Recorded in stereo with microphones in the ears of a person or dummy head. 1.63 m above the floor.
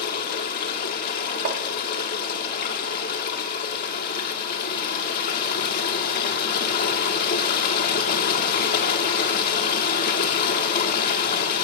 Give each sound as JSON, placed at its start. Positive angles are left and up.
{"t": 0.0, "sound": "running water", "side_deg": 55, "distance_m": 1.4}
{"t": 1.4, "sound": "tapping", "side_deg": -55, "distance_m": 1.4}